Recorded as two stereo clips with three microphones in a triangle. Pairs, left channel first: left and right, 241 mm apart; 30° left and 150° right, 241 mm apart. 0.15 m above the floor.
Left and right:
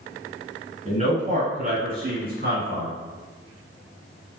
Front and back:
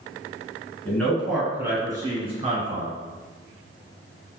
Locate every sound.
0.8 s a man speaking: 50° right, 1.6 m; by 2.9 s 115° right, 1.7 m